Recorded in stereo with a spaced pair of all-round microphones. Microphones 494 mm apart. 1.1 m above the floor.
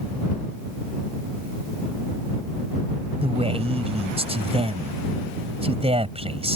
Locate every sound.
3.2 s a man speaking: 10° right (ahead or behind)